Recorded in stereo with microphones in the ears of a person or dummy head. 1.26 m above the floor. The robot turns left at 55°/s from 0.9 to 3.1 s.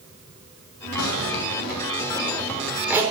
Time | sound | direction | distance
1.0 | a zipper | 85° left | 3.5 m